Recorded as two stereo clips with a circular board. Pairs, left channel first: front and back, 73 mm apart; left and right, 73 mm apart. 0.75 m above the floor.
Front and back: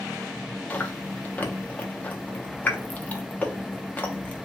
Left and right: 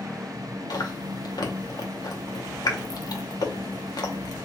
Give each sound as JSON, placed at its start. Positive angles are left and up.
{"t": 0.7, "sound": "chewing", "azimuth_deg": 70, "distance_m": 0.6}